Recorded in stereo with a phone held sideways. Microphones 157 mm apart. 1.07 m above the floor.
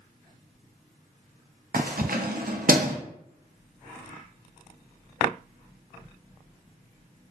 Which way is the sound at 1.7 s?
70° right (ahead or behind).